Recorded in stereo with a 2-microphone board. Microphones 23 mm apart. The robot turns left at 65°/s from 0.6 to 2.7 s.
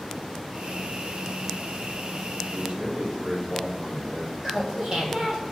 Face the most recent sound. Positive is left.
turn(degrees=-35)  # may be behind; listen again after turning